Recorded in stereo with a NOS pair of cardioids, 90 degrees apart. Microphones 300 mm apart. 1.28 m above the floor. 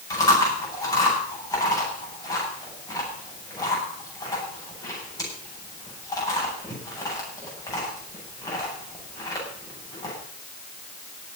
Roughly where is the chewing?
Ahead.